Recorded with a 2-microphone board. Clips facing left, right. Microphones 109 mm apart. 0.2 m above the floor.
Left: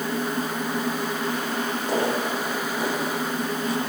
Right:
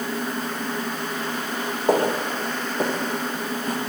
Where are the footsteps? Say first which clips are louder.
Right 5 dB; 45° right (ahead or behind), 5 m.